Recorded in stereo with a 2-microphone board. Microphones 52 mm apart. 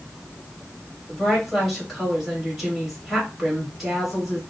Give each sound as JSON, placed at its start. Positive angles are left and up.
{"t": 1.1, "sound": "a woman speaking", "side_deg": -5, "distance_m": 1.8}